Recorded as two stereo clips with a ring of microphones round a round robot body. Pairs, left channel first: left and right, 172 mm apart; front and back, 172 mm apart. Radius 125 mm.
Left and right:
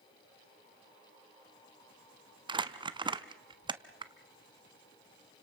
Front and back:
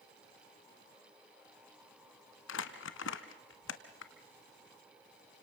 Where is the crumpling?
25° right, 1.0 m.